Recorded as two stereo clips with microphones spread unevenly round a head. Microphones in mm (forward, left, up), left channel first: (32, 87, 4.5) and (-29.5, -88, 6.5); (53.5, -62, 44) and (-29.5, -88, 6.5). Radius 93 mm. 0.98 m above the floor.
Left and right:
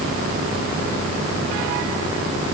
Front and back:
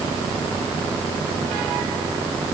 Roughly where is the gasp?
No gasp in this recording.